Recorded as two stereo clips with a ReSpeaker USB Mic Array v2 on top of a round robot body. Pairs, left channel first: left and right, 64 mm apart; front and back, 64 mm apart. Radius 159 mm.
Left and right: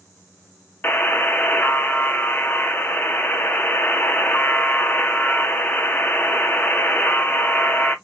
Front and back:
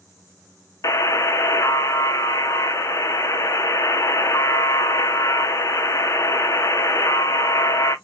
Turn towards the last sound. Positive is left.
turn(degrees=30)